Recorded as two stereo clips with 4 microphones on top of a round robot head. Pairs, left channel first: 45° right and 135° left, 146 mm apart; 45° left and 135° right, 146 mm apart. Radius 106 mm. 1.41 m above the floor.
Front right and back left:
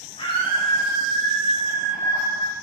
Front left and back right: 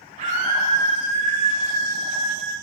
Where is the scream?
95° right, 7 m; by 2.5 s 100° right, 5 m.